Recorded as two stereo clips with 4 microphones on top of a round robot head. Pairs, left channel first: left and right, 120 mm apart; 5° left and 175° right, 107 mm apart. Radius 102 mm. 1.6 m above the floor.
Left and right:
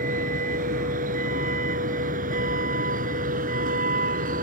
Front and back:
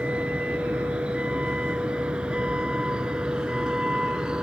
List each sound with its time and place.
0.0 s a vehicle: 95° right; by 4.4 s 90° right